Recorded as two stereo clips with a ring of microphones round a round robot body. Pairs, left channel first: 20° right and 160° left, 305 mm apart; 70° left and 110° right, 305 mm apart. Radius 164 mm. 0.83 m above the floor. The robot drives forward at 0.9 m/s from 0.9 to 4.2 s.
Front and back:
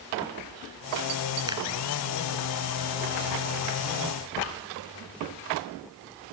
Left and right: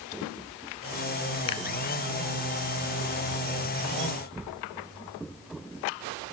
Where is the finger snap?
80° left.